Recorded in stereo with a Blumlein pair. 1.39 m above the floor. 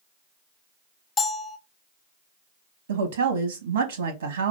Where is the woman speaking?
65° right, 0.7 m.